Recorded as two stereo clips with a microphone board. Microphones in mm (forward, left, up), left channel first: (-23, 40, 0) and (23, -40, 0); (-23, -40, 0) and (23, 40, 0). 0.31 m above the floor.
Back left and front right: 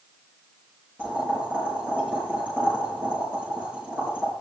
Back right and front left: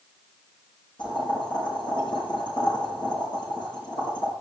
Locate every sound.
1.0 s boiling: 130° right, 6.5 m